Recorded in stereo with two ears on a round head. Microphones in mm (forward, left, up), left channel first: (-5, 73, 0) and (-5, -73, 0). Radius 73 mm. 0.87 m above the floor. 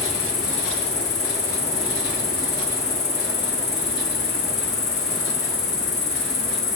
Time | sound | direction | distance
0.0 | an insect | 75° left (ahead or behind) | 6 m